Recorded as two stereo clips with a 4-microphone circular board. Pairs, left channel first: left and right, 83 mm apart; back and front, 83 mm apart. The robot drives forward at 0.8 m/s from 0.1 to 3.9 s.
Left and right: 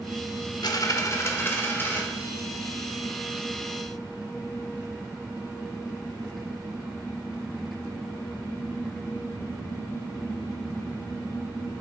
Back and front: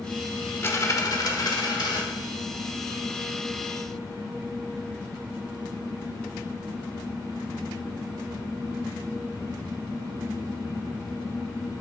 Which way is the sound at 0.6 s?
120° left.